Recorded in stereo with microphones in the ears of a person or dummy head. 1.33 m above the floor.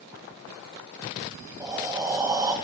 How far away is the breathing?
About 1.2 m.